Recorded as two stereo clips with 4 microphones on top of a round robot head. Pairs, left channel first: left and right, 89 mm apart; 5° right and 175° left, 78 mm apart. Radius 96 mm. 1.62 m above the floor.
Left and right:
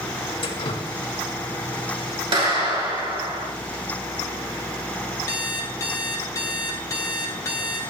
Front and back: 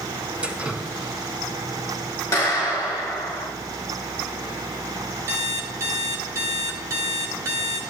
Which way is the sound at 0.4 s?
105° left.